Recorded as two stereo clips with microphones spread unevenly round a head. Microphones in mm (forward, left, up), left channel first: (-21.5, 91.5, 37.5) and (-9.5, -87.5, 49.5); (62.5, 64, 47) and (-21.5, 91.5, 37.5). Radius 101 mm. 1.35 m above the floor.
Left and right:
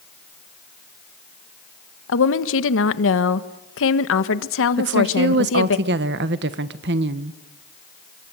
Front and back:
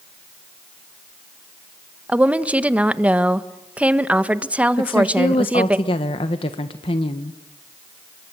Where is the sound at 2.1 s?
85° left, 1.4 m.